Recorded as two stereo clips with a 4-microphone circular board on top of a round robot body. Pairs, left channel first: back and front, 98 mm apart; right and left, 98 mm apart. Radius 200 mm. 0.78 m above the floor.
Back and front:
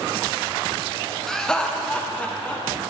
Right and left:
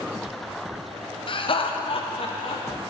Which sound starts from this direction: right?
Laughter, at 1.3 s.